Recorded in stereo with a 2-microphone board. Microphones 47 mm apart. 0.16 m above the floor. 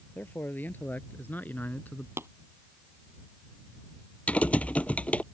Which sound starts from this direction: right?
Tapping, at 2.2 s.